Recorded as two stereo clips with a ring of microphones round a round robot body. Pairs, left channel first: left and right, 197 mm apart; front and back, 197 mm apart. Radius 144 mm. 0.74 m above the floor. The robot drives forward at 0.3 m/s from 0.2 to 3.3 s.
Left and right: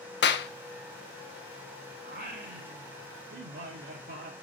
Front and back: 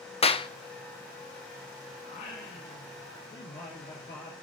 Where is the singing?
60° right, 1.9 m; by 4.3 s 75° right, 1.8 m.